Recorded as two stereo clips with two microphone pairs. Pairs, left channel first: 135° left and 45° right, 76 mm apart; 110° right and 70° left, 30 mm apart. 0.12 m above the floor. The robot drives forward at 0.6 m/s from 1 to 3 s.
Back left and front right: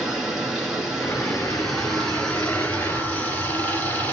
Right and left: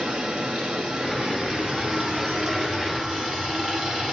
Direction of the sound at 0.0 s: 35° left.